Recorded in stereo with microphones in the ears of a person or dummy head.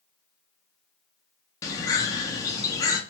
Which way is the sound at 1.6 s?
15° left (ahead or behind).